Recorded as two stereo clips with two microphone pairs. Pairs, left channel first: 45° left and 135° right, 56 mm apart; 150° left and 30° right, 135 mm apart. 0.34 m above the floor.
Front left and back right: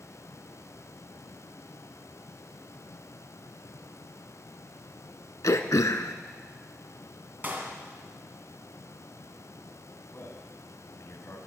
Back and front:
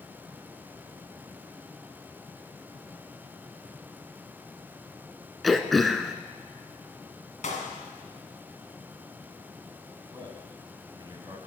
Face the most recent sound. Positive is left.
turn(degrees=25)